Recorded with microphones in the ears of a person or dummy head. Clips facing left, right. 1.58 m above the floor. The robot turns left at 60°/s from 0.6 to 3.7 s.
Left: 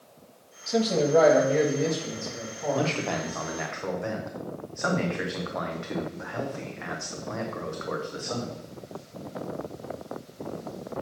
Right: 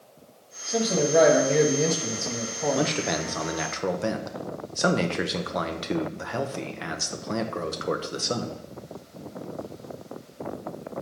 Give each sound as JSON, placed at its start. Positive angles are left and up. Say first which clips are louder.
{"t": 0.7, "sound": "a man speaking", "louder": "left 1 dB", "azimuth_deg": 5, "distance_m": 1.3}
{"t": 2.7, "sound": "a man speaking", "louder": "left 1 dB", "azimuth_deg": -15, "distance_m": 0.8}